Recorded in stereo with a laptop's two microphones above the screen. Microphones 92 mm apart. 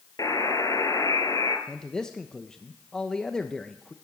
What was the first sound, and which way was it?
A buzzer, 40° left (ahead or behind).